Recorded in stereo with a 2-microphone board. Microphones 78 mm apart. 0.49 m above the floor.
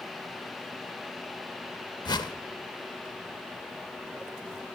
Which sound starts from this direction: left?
A whoosh, at 2.0 s.